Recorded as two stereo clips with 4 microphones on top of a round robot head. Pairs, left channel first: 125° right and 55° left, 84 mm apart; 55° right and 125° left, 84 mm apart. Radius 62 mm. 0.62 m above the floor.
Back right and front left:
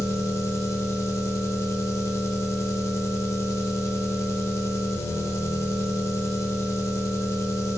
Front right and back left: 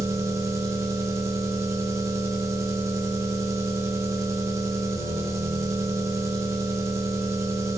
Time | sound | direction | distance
0.0 | an engine running | straight behind | 0.9 m